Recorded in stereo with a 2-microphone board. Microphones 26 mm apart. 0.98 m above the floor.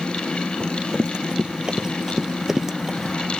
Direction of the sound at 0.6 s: 35° right (ahead or behind).